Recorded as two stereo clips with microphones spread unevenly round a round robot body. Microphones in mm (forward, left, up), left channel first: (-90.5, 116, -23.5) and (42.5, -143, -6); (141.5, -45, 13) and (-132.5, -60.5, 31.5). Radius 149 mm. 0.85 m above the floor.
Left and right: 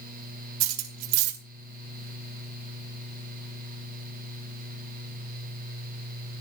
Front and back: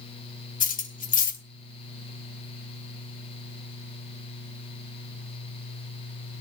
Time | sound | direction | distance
0.6 | cutlery clinking | 60° right | 2 m